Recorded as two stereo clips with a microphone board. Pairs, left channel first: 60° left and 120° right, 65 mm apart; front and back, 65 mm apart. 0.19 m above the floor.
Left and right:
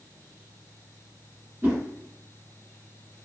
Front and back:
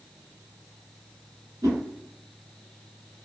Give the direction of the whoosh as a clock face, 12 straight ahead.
6 o'clock.